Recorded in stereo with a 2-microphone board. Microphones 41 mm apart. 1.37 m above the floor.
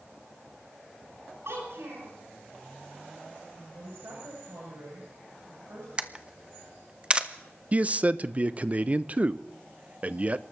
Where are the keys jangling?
I don't hear keys jangling.